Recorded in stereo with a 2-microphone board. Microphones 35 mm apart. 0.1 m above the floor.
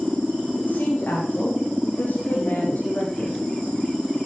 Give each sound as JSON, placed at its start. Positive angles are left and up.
{"t": 0.6, "sound": "a woman speaking", "side_deg": 75, "distance_m": 8.0}